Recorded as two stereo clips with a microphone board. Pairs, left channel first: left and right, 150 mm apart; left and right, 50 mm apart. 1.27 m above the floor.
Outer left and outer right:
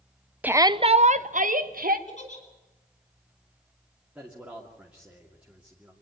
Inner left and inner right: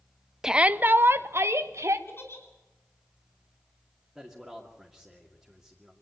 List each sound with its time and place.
0.4 s a shout: 10° right (ahead or behind), 0.6 m; by 2.0 s 70° right (ahead or behind), 1.5 m
2.1 s a giggle: 50° left (ahead or behind), 5 m
4.2 s a man speaking: 10° right (ahead or behind), 2.5 m